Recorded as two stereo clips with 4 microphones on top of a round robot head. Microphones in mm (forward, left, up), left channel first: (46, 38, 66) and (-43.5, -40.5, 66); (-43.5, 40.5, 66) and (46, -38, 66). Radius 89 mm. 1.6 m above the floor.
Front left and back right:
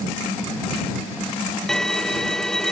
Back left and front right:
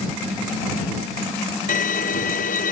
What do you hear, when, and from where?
1.7 s a violin: 125° left